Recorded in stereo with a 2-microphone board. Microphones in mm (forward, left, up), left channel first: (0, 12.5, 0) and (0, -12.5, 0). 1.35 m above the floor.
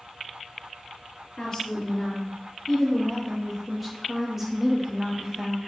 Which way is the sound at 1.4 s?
25° left (ahead or behind).